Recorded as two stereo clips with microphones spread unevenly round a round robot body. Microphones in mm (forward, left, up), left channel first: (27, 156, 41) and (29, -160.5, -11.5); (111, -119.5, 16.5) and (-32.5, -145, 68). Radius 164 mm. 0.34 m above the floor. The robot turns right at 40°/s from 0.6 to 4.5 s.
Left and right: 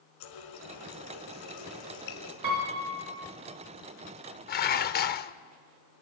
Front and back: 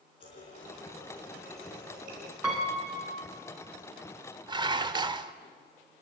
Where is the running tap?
70° left, 2.5 m; by 2.3 s 140° left, 2.5 m.